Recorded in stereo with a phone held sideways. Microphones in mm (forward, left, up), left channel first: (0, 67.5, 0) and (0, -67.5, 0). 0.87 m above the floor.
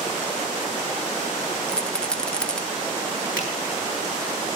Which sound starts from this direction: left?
A finger snap, at 3.4 s.